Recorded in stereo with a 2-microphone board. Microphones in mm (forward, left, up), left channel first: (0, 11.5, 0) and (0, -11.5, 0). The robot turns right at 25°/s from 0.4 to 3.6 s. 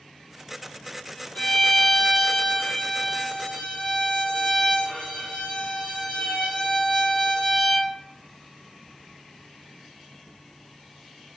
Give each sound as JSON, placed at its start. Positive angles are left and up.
{"t": 1.4, "sound": "a violin", "azimuth_deg": 70, "distance_m": 0.9}